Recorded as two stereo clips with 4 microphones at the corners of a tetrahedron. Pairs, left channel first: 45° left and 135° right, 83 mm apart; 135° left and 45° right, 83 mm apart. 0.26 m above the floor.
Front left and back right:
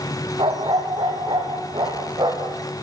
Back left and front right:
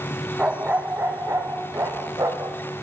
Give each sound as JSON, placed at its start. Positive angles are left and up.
{"t": 0.4, "sound": "a dog barking", "azimuth_deg": -120, "distance_m": 3.0}